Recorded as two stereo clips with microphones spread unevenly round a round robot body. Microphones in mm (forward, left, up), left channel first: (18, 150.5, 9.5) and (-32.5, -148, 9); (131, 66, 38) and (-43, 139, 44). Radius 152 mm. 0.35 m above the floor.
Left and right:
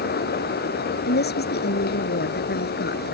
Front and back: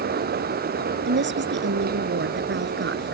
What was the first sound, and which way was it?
A woman speaking, 140° left.